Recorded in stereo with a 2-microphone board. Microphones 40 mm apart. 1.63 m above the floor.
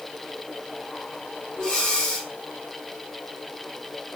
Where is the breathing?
20° left (ahead or behind), 2 m.